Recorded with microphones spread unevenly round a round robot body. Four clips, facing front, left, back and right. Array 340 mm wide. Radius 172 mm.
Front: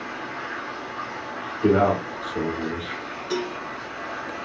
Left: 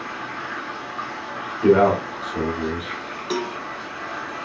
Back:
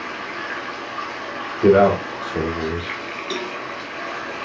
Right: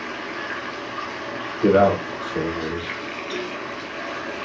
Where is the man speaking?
175° right, 5.5 m.